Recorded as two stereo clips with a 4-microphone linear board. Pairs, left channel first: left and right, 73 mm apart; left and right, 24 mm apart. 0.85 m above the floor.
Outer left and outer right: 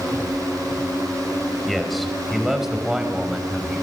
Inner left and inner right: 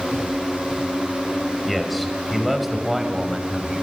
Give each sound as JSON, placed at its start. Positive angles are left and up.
{"t": 1.7, "sound": "a man speaking", "side_deg": 0, "distance_m": 5.0}